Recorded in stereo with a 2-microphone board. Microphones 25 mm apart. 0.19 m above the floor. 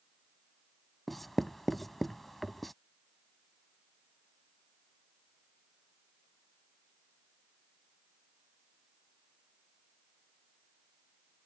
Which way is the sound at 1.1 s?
5° left (ahead or behind).